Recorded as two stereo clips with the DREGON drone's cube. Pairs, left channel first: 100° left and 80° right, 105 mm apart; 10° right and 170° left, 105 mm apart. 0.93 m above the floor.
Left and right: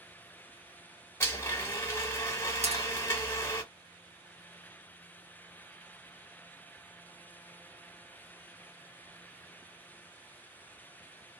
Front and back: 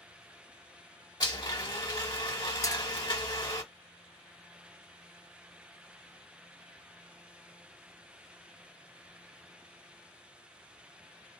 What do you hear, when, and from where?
1.2 s a blender: 35° left, 1.3 m
2.6 s a clink: 70° right, 0.9 m